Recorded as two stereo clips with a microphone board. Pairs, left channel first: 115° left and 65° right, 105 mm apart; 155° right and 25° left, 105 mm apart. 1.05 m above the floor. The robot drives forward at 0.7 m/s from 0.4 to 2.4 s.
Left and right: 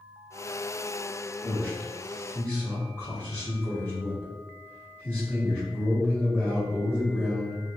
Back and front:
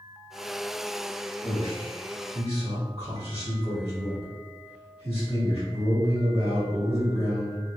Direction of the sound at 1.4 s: 175° right.